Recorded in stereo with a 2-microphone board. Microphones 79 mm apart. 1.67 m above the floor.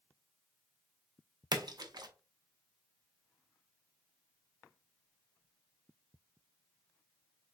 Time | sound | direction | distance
1.5 | a splash | 60° right (ahead or behind) | 0.6 m